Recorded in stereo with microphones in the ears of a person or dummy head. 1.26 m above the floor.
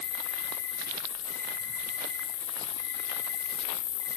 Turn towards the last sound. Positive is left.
turn(degrees=-15)  # may be behind; listen again after turning